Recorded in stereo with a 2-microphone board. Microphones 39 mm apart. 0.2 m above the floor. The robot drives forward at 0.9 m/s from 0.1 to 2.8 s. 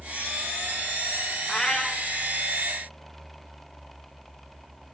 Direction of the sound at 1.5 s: 20° left (ahead or behind).